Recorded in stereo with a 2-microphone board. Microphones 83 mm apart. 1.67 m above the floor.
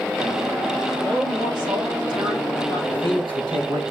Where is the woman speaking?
85° right, 5.5 m; by 2.8 s 70° right (ahead or behind), 4 m.